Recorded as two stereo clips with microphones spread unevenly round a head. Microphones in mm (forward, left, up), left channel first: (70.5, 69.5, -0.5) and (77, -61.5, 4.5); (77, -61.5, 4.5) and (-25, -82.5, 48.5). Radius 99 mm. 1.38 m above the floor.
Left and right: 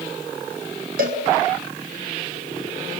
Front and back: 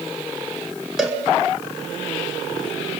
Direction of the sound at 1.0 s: 85° right.